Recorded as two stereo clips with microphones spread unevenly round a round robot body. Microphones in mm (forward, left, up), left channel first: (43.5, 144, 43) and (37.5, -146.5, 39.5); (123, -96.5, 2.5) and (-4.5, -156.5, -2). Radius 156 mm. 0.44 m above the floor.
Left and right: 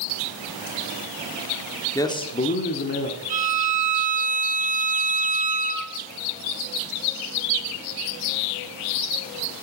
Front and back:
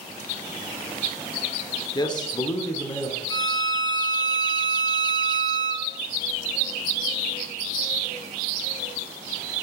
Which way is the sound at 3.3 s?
35° right.